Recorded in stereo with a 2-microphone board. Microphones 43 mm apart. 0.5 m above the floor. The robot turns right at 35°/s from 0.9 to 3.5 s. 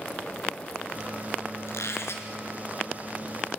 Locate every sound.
1.7 s a squeak: 80° left, 3 m; by 2.3 s 60° left (ahead or behind), 3 m